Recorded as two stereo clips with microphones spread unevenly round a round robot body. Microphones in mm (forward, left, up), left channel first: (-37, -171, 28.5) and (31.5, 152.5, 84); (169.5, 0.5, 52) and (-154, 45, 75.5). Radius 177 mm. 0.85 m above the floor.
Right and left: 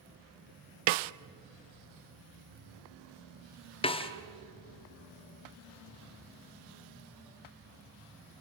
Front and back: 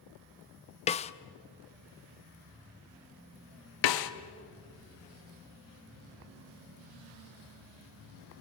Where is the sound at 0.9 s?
60° left, 0.5 m.